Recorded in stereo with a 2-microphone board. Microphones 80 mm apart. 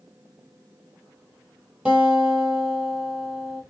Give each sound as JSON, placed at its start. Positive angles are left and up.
{"t": 1.9, "sound": "a guitar", "side_deg": -10, "distance_m": 1.1}